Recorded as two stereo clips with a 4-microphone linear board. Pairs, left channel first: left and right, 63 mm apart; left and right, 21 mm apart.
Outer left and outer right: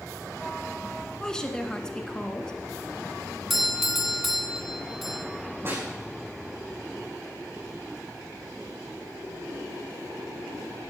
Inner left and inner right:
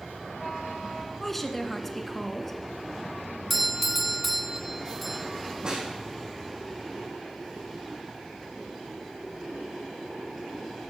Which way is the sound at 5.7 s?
40° right (ahead or behind).